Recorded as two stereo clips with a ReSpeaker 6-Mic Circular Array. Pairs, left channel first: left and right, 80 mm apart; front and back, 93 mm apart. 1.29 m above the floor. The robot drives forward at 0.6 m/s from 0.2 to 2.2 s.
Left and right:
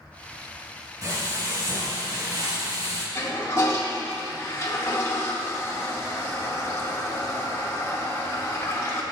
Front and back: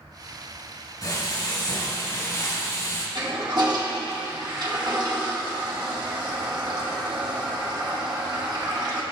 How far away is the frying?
About 4.5 m.